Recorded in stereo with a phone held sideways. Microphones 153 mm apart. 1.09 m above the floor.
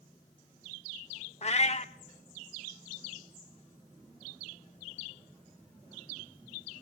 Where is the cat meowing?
45° left (ahead or behind), 0.9 m.